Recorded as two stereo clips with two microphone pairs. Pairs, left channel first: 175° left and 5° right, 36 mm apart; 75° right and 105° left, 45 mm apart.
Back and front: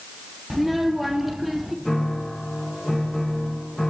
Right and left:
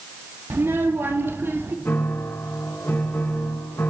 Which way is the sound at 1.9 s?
105° right.